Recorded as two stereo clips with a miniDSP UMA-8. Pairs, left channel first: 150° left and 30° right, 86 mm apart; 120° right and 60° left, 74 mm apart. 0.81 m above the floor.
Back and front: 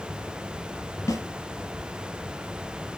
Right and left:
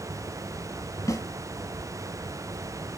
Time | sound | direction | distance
1.1 | a snare drum | 160° right | 2.5 m